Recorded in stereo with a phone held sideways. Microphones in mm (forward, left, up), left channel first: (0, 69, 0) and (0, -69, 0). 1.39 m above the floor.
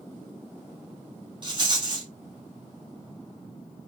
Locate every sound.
1.4 s a rattle: 35° right (ahead or behind), 1.8 m